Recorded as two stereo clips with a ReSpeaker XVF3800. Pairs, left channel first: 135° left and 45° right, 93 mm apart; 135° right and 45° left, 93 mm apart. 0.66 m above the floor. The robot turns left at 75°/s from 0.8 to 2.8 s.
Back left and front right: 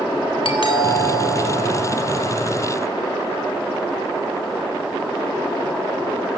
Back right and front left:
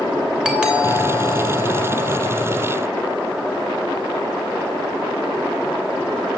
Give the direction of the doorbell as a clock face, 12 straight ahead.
8 o'clock.